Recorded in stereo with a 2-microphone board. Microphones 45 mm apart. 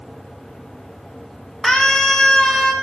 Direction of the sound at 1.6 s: 15° left (ahead or behind).